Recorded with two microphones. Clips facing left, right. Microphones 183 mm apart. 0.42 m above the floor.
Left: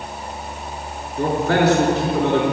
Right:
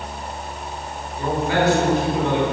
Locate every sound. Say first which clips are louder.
1.2 s a man speaking: left 3 dB; 80° left, 4.5 m